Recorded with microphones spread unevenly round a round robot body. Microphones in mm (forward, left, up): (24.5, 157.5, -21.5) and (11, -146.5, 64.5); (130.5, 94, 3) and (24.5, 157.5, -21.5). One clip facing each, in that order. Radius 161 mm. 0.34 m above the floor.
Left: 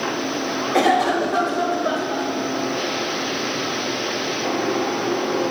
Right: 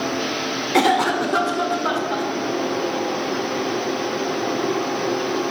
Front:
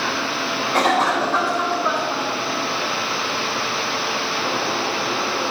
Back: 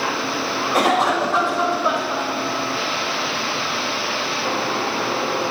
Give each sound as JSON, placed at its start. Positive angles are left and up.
{"t": 0.7, "sound": "a cough", "azimuth_deg": -165, "distance_m": 0.9}